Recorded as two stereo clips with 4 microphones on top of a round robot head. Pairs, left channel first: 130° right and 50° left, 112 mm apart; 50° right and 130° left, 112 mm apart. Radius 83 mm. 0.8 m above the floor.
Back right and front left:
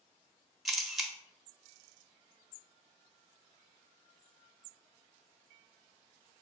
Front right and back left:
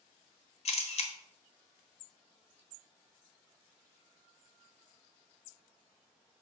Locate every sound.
0.7 s a camera shutter: 40° right, 1.3 m